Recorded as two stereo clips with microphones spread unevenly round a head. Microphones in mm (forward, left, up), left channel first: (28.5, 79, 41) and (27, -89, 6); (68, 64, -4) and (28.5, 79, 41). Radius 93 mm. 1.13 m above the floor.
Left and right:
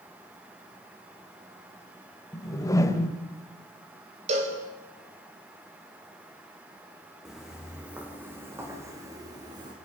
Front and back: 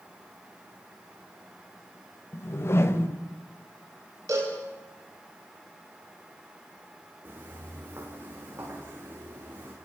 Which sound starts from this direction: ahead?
A whoosh, at 2.3 s.